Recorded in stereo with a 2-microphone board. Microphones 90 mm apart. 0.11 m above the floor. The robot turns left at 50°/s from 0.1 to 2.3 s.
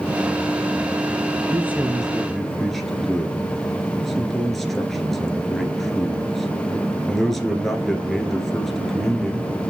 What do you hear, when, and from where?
1.5 s a man speaking: 145° right, 1.6 m; by 9.6 s 175° left, 1.6 m